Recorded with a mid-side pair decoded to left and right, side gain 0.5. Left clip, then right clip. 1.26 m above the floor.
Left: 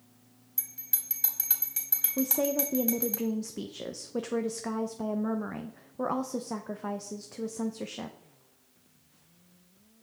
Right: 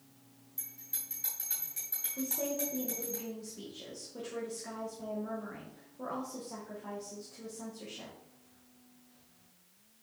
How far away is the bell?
About 3 m.